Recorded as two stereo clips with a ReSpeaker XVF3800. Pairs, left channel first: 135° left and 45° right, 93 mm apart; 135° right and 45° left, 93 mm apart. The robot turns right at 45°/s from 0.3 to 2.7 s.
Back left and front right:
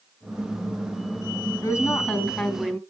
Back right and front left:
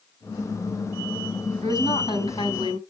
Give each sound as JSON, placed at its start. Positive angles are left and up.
{"t": 1.6, "sound": "a woman speaking", "azimuth_deg": -170, "distance_m": 3.5}